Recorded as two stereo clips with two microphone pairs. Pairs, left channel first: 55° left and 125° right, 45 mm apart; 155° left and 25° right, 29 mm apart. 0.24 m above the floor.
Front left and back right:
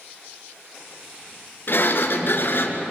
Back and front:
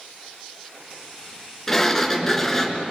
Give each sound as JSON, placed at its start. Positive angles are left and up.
{"t": 1.7, "sound": "a sliding door", "azimuth_deg": 80, "distance_m": 2.5}